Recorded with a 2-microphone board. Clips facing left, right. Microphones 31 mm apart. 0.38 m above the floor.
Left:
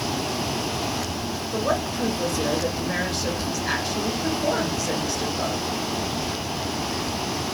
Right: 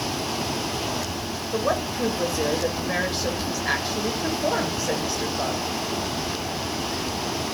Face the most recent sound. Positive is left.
turn(degrees=-15)  # may be behind; listen again after turning